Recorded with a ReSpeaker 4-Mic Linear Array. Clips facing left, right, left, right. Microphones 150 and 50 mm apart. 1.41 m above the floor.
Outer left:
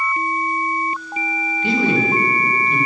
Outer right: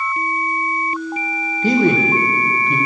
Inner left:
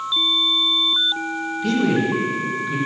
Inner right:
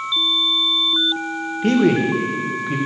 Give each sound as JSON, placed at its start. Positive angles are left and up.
{"t": 1.6, "sound": "a man speaking", "side_deg": -40, "distance_m": 1.3}